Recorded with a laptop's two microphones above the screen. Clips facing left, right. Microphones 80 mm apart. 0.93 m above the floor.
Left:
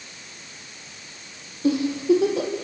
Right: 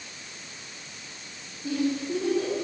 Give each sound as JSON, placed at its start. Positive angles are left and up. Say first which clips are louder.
{"t": 1.6, "sound": "a giggle", "louder": "left 8 dB", "side_deg": 80, "distance_m": 6.0}